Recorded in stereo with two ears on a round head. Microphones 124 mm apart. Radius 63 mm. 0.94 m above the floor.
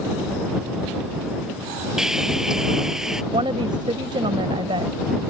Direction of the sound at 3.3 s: 35° right (ahead or behind).